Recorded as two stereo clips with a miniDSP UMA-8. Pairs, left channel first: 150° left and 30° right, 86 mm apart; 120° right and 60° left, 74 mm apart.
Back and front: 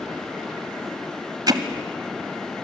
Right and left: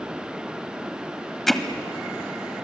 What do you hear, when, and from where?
1.5 s hammering: 35° right, 1.6 m